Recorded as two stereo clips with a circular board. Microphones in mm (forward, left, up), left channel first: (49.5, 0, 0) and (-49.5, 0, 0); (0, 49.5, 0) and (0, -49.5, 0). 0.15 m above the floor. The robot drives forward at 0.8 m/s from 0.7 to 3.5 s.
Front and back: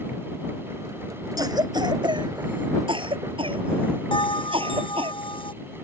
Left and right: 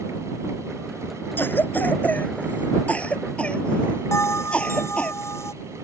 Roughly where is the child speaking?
I don't hear a child speaking.